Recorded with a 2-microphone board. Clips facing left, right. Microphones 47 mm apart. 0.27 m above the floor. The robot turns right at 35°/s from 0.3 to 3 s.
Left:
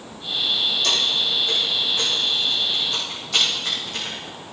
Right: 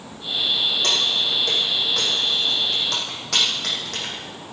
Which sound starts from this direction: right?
Keys jangling, at 0.8 s.